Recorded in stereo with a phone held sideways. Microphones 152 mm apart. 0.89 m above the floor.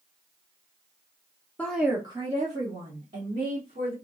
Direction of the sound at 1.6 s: 10° left (ahead or behind).